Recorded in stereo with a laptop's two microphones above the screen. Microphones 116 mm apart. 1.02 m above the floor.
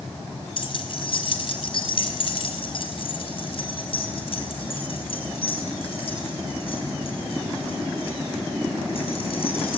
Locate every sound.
0.6 s keys jangling: 50° left (ahead or behind), 2.5 m; by 9.8 s 60° left (ahead or behind), 7.5 m